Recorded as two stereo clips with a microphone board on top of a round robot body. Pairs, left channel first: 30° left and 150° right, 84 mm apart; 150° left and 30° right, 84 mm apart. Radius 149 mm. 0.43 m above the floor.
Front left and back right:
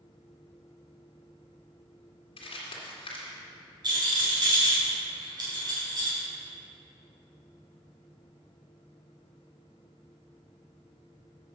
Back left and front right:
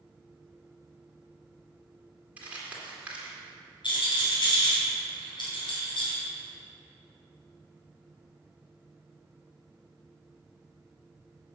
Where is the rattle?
175° left, 3.5 m.